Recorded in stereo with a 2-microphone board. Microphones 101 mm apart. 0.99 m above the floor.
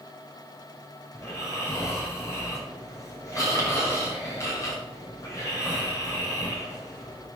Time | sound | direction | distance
1.1 | snoring | 30° left (ahead or behind) | 6 m